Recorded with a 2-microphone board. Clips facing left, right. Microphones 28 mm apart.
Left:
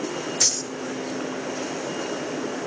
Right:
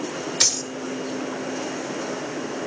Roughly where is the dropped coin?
Right.